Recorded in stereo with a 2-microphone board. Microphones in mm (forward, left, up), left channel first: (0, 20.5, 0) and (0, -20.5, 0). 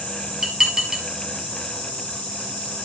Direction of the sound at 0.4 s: 15° right (ahead or behind).